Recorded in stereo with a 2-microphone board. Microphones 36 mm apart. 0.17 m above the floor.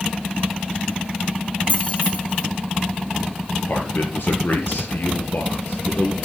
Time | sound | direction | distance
1.7 | keys jangling | 40° left (ahead or behind) | 3.5 m
3.7 | a man speaking | 70° left (ahead or behind) | 3.5 m